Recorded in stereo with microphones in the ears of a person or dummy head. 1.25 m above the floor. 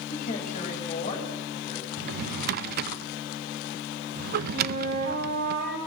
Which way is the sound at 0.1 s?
45° left (ahead or behind).